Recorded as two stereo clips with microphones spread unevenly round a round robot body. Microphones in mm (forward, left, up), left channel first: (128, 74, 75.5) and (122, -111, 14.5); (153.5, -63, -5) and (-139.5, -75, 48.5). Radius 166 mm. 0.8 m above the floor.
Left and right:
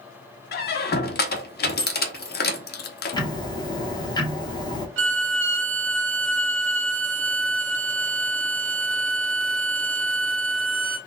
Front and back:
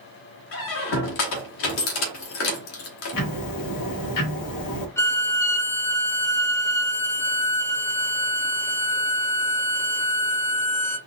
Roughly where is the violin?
Right.